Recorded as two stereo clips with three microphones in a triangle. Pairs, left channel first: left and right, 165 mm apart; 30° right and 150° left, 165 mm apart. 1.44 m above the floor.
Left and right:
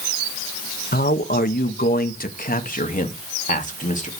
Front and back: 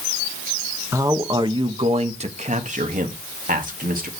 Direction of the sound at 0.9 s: 80° left.